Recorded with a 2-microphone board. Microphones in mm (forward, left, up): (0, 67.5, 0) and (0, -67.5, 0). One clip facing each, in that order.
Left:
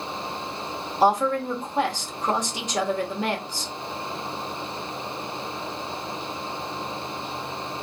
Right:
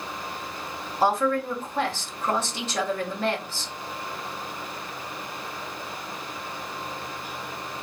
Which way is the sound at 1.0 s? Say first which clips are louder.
Left 2 dB; 15° left (ahead or behind).